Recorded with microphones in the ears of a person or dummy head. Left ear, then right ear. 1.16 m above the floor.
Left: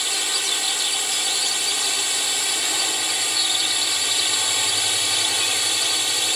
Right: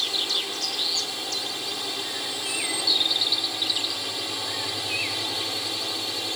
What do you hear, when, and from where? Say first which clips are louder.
0.0 s a drone: left 2 dB; 60° left (ahead or behind)